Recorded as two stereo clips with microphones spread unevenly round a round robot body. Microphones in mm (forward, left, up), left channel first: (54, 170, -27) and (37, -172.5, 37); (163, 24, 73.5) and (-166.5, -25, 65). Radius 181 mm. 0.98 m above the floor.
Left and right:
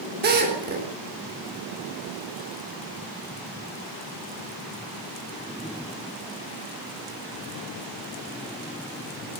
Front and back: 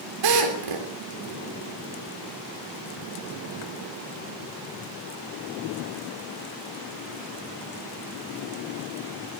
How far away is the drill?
About 3.5 m.